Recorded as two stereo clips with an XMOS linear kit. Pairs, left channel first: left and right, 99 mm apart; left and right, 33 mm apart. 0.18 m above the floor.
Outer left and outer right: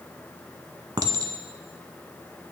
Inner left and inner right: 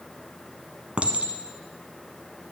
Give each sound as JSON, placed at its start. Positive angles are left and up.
{"t": 1.0, "sound": "a clink", "side_deg": -40, "distance_m": 0.8}